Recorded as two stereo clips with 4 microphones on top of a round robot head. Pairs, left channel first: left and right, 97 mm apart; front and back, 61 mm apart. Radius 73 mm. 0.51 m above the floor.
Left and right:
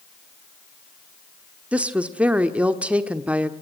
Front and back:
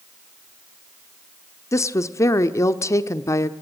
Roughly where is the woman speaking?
Ahead.